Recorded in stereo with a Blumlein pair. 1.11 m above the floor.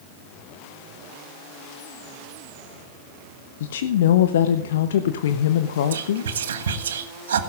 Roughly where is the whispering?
Ahead right.